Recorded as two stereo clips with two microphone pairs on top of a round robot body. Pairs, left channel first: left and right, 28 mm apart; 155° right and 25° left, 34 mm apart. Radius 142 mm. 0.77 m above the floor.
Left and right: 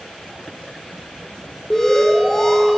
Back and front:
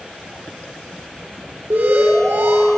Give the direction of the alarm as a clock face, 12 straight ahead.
11 o'clock.